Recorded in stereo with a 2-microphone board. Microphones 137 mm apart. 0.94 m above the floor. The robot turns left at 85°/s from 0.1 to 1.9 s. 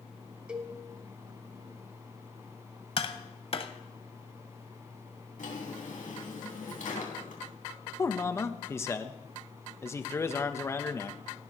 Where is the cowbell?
5° right (ahead or behind), 1.2 m; by 0.7 s 25° right (ahead or behind), 1.2 m.